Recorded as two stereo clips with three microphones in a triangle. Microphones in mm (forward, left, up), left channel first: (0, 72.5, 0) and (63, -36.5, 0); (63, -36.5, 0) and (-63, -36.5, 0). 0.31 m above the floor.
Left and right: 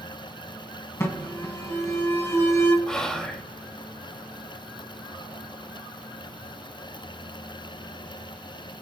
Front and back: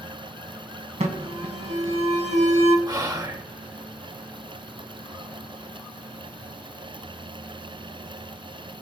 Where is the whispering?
160° right, 1.5 m.